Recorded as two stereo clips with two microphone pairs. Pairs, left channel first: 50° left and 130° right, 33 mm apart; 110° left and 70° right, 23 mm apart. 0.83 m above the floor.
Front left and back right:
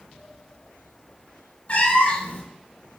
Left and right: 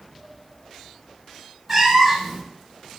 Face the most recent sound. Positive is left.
turn(degrees=5)